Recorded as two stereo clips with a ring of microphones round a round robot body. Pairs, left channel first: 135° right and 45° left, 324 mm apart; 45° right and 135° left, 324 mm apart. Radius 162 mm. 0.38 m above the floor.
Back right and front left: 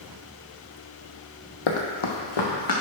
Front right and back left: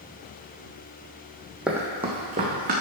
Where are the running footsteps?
135° right, 1.1 m; by 2.7 s 160° right, 2.5 m.